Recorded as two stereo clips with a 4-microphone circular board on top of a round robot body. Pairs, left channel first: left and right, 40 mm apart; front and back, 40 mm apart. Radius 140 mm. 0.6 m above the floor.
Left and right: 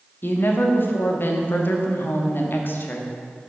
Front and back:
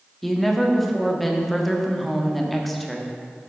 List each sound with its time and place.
0.2 s a woman speaking: 90° left, 1.7 m